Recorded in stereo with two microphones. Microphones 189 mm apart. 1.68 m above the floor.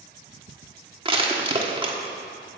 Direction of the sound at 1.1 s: 25° right (ahead or behind).